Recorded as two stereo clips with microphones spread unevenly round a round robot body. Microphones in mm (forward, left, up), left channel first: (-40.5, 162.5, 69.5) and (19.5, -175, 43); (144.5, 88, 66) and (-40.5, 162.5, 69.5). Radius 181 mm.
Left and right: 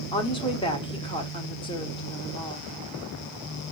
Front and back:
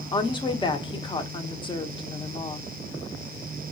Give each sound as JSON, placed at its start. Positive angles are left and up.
{"t": 0.1, "sound": "a woman speaking", "azimuth_deg": 25, "distance_m": 1.0}